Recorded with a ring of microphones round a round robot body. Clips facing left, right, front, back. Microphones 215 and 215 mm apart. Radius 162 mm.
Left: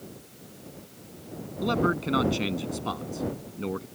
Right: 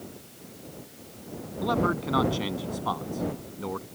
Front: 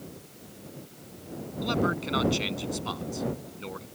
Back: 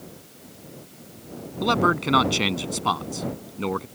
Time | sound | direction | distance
1.6 | a man speaking | 160° left | ?